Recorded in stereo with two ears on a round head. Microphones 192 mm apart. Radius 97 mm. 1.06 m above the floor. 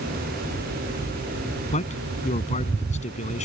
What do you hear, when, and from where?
1.7 s a man speaking: 35° left (ahead or behind)